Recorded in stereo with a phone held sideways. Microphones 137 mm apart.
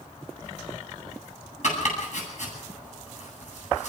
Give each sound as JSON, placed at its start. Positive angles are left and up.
{"t": 1.6, "sound": "chopping", "side_deg": 60, "distance_m": 9.0}